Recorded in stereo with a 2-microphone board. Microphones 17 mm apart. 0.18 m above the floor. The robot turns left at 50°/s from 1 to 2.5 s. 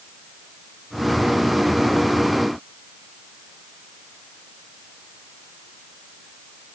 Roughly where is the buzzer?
I don't hear a buzzer.